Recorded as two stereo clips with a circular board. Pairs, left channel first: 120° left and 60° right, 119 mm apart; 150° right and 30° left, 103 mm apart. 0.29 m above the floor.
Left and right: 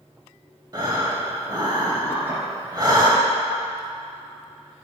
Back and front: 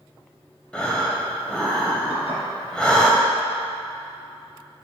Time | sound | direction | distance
0.7 | breathing | 75° right | 1.4 m
2.1 | dishes clattering | 135° right | 3 m